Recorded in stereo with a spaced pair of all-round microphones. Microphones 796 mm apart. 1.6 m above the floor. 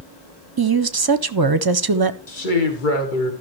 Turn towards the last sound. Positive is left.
turn(degrees=80)